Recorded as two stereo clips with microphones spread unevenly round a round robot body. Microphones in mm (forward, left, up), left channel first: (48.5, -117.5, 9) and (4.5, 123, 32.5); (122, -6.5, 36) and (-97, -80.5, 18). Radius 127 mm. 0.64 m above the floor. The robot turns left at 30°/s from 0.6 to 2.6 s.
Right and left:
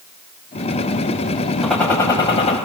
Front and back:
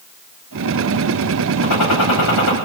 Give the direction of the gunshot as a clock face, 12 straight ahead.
12 o'clock.